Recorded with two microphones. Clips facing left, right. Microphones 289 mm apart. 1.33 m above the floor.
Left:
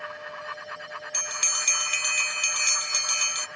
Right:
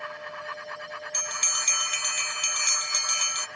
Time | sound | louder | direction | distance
1.1 | a bell | even | 35° left (ahead or behind) | 0.6 m